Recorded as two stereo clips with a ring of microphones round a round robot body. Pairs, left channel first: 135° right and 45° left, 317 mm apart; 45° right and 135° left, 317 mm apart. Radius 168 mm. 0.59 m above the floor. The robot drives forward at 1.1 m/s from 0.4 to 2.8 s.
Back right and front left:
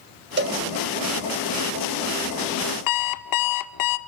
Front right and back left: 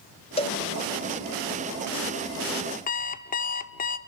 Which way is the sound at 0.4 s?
15° left.